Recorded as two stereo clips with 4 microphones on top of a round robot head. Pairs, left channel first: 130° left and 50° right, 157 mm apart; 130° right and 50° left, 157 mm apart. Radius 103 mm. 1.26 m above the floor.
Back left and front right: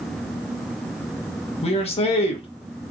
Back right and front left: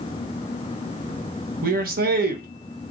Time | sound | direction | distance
1.6 | a man speaking | 80° left | 1.0 m